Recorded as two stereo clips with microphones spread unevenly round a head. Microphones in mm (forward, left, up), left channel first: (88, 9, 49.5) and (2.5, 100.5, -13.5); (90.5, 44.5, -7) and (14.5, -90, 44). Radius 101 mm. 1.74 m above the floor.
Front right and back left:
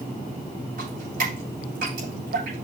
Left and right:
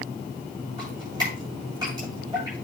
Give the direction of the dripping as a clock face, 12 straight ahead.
6 o'clock.